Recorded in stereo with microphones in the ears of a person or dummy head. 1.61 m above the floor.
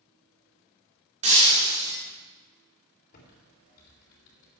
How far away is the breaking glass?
About 3 m.